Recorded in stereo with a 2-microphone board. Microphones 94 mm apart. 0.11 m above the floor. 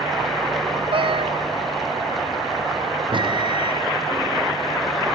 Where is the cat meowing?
60° right (ahead or behind).